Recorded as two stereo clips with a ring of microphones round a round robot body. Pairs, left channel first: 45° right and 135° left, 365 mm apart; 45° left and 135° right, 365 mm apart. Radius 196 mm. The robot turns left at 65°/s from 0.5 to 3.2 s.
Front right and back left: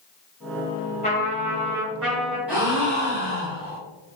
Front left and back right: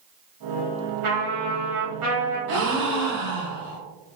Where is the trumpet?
110° right, 1.2 m; by 2.4 s 160° left, 1.2 m.